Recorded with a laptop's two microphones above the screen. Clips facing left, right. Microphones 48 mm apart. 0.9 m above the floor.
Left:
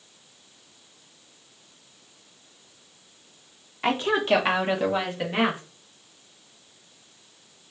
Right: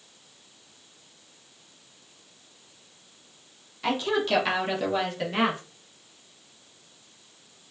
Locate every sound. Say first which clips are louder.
3.8 s a woman speaking: left 3 dB; 35° left (ahead or behind), 0.9 m; by 5.6 s 10° left (ahead or behind), 1.4 m